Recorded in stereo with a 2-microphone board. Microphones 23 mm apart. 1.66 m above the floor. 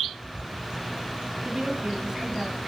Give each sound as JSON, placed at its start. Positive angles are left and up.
{"t": 1.4, "sound": "a woman speaking", "side_deg": -25, "distance_m": 3.5}